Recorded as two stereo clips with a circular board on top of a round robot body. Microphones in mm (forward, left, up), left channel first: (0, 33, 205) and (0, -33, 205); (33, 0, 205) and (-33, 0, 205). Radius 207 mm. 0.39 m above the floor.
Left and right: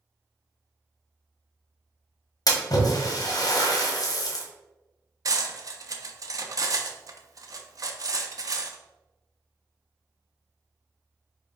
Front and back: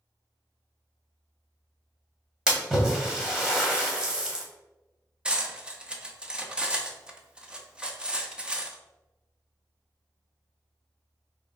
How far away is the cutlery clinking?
About 0.7 m.